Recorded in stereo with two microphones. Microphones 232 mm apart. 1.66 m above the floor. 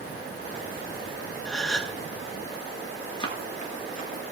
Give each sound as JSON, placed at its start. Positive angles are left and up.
{"t": 1.4, "sound": "a gasp", "side_deg": 5, "distance_m": 0.6}
{"t": 3.2, "sound": "running footsteps", "side_deg": 20, "distance_m": 1.7}